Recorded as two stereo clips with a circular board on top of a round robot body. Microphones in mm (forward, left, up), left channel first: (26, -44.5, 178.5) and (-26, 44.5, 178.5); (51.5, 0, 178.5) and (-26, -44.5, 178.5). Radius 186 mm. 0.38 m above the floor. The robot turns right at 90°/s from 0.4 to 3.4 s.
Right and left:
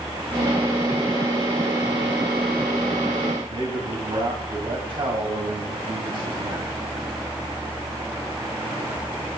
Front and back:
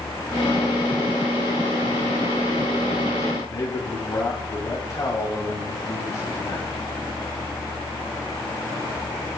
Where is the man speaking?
85° left, 4 m.